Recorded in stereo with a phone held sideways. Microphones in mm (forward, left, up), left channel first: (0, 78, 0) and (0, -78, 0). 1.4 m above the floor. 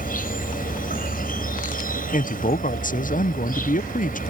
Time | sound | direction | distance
0.0 | an insect | 65° left (ahead or behind) | ?
2.1 | a man speaking | 60° left (ahead or behind) | ?